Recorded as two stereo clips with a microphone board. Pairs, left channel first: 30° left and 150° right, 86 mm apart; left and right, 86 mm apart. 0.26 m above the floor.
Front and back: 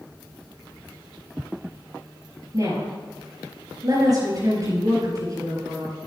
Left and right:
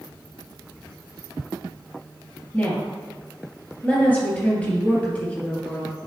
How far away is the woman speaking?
About 5 m.